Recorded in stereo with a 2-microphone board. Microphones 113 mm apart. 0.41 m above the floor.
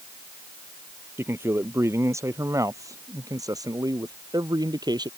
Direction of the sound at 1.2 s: 20° right (ahead or behind).